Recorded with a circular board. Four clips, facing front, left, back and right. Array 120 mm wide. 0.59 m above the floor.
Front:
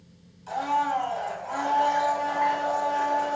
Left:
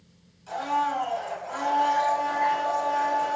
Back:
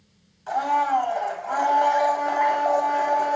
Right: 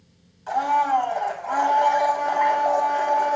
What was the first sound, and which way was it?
A blender, 135° right.